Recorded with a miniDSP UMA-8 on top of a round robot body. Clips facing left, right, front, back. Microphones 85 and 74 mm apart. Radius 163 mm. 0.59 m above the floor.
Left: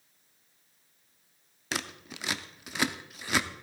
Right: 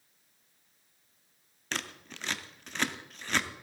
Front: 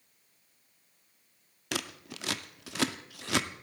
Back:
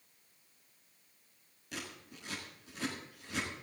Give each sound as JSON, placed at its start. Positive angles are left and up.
{"t": 1.7, "sound": "scissors", "azimuth_deg": 10, "distance_m": 0.6}